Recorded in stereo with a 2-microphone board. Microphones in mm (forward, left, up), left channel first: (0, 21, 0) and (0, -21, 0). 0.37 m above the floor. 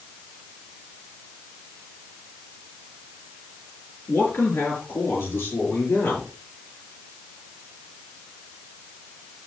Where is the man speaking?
75° left (ahead or behind), 5.5 m; by 6.3 s 80° left, 8 m.